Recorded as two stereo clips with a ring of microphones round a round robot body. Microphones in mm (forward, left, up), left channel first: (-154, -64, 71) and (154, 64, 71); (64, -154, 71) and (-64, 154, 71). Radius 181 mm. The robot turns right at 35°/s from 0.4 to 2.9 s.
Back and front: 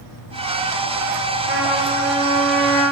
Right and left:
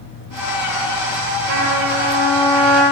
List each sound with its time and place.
1.5 s a trumpet: 80° left, 8 m; by 2.8 s 125° left, 8 m